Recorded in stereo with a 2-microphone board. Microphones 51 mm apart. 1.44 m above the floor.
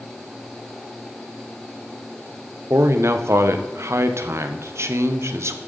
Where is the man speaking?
65° right (ahead or behind), 0.9 m.